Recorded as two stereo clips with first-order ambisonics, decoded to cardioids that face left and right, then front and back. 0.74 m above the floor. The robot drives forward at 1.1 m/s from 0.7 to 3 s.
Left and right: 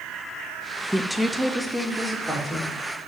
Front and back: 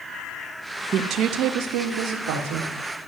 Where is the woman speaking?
175° right, 0.6 m; by 2.7 s straight behind, 2.5 m.